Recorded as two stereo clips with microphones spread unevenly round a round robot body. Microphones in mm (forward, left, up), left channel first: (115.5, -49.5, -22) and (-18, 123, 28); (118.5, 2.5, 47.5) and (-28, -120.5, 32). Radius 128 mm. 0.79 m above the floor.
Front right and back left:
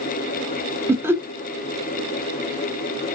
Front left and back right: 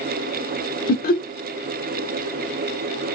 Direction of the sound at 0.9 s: 35° left.